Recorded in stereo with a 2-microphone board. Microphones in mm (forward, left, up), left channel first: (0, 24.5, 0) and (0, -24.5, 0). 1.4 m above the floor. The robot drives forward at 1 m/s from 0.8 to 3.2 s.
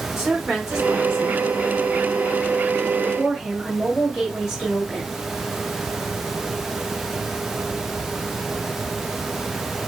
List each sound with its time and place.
0.2 s a woman speaking: 10° right (ahead or behind), 2.5 m; by 1.5 s 15° right (ahead or behind), 1.7 m
3.0 s a woman speaking: 5° right (ahead or behind), 1.9 m